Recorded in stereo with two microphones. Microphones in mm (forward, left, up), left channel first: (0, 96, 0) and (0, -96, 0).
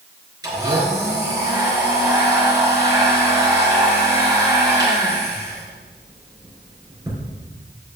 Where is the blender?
20° right (ahead or behind), 4 m.